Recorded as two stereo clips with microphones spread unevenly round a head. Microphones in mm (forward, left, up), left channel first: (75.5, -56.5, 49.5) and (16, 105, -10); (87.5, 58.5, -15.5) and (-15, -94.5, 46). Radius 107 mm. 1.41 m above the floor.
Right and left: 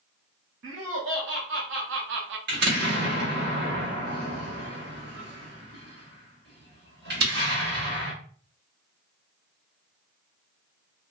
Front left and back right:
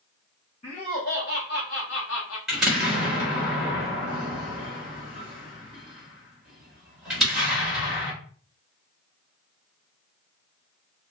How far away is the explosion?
About 1.3 m.